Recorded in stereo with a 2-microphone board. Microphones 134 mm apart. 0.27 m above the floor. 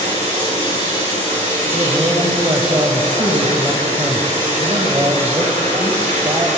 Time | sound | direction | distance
0.0 | running water | 80° right | 5.5 m
1.7 | a man speaking | 30° right (ahead or behind) | 1.2 m